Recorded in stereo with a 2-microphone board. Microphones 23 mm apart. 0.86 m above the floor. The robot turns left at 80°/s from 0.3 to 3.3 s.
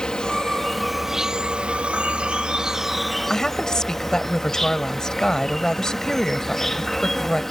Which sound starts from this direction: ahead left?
An insect, at 0.0 s.